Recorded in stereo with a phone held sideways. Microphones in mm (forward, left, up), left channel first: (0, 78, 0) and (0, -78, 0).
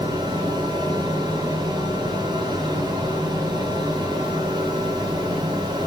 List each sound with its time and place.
0.0 s a fan: 25° right (ahead or behind), 1.0 m